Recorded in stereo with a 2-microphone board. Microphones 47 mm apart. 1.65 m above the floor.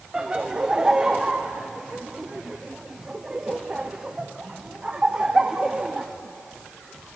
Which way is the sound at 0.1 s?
20° right (ahead or behind).